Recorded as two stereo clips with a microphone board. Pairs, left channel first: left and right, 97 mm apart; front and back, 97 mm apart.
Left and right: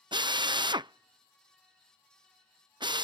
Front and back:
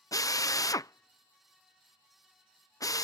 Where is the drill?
50° right.